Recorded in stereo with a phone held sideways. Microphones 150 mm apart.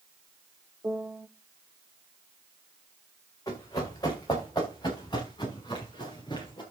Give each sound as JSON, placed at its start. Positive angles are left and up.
{"t": 0.8, "sound": "a piano", "side_deg": -15, "distance_m": 0.9}
{"t": 3.5, "sound": "running footsteps", "side_deg": 25, "distance_m": 5.0}